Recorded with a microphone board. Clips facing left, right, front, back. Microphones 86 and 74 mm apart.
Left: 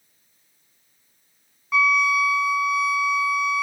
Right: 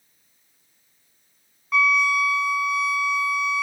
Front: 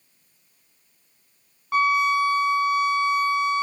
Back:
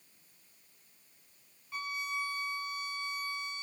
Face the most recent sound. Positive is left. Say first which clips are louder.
# left 1 dB, front 19 dB
turn(degrees=0)